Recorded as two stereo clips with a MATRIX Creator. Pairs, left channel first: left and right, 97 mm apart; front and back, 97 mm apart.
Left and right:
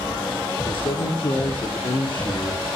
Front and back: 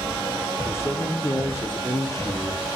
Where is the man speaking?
60° left, 7.5 m; by 2.6 s 50° left, 7.5 m.